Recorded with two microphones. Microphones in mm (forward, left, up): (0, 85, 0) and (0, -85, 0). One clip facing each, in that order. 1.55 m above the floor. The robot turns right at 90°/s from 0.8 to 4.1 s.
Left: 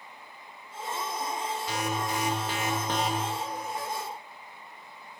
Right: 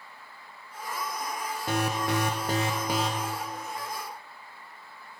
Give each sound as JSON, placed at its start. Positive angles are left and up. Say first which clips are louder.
{"t": 1.7, "sound": "an alarm", "louder": "right 6 dB", "azimuth_deg": -125, "distance_m": 1.4}